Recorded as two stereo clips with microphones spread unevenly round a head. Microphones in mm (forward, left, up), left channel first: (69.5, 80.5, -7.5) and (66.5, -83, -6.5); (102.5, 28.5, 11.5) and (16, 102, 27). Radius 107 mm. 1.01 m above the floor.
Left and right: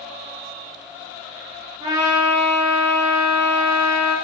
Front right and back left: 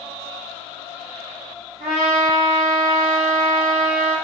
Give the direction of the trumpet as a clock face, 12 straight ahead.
6 o'clock.